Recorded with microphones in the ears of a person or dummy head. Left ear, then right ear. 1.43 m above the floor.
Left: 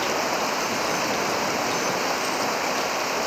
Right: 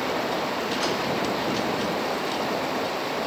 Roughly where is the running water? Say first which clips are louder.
Left 2 dB; left.